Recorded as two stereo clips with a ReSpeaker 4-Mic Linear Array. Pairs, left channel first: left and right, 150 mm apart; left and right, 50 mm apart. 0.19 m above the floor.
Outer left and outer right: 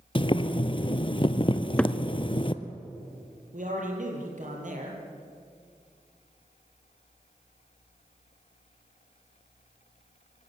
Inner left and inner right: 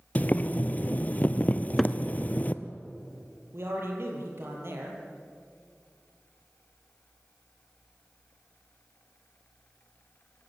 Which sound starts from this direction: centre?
A cupboard door, at 1.5 s.